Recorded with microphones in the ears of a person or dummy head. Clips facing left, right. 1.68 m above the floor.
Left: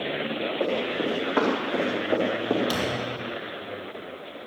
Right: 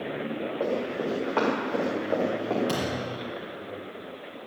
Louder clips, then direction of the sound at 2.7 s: Left 1 dB; 45° right (ahead or behind).